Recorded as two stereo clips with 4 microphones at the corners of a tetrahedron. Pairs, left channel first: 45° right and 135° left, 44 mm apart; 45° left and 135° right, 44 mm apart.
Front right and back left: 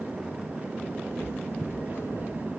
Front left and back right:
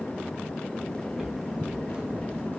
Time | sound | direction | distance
1.1 | footsteps | 55° right | 2.5 m